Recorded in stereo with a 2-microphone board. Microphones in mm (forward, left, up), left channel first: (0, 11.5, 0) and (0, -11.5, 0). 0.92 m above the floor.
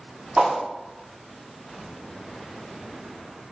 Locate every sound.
0.4 s a whoosh: 50° right (ahead or behind), 0.6 m